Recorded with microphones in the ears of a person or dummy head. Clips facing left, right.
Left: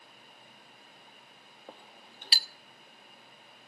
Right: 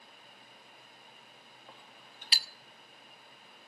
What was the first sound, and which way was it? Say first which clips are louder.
A clink: left 7 dB; 30° left (ahead or behind).